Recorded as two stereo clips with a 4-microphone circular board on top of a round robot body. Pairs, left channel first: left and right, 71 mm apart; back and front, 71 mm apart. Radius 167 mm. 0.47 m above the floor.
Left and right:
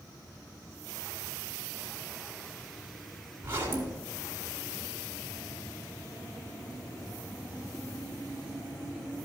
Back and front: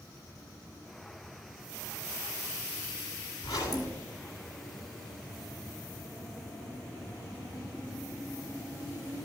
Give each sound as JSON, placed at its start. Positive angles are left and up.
{"t": 3.4, "sound": "a zipper", "azimuth_deg": -150, "distance_m": 2.5}